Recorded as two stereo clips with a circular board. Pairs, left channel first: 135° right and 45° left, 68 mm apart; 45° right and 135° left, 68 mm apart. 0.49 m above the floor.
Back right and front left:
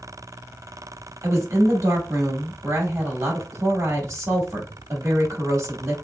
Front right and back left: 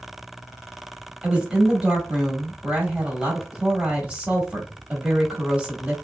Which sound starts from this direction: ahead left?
A woman speaking, at 1.2 s.